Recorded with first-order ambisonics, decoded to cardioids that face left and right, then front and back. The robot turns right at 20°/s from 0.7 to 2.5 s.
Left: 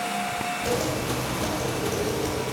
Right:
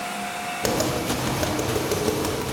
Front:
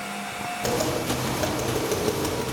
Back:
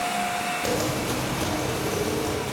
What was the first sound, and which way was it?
Tapping, 90° right.